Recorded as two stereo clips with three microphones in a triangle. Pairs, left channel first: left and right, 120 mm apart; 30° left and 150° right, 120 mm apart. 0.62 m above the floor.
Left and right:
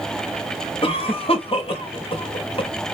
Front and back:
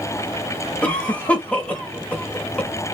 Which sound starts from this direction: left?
A cough, at 0.8 s.